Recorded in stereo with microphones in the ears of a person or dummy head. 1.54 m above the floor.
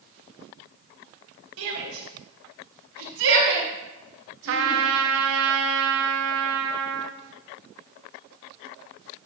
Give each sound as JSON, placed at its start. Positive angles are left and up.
{"t": 1.6, "sound": "a shout", "side_deg": -85, "distance_m": 2.5}
{"t": 4.5, "sound": "a trumpet", "side_deg": -65, "distance_m": 0.6}